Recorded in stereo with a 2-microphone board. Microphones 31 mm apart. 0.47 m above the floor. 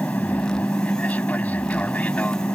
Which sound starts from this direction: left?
An aircraft, at 0.0 s.